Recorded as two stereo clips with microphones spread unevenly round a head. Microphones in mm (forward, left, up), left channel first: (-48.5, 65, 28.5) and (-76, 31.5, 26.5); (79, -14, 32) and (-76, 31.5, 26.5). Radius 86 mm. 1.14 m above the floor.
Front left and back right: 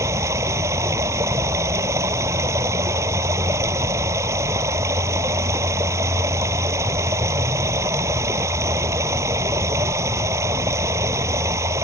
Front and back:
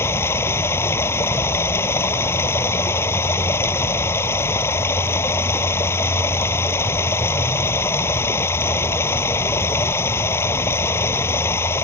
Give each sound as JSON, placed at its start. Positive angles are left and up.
{"t": 0.0, "sound": "running water", "azimuth_deg": -90}